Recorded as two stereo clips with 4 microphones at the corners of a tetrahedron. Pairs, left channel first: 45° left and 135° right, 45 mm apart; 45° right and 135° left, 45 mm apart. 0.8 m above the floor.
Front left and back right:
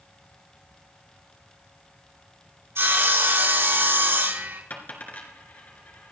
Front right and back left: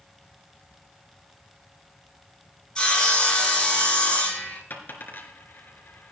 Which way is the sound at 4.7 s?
5° right.